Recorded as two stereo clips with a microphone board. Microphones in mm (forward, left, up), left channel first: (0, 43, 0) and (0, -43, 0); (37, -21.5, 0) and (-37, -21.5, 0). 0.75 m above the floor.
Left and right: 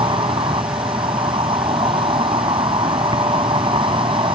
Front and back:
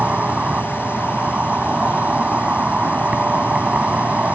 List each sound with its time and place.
0.0 s an insect: 105° right